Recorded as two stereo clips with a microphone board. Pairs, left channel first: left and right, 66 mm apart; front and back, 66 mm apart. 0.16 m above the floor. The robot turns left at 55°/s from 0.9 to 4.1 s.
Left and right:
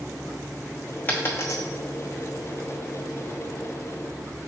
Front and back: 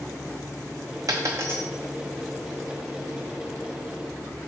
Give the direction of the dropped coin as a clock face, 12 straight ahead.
7 o'clock.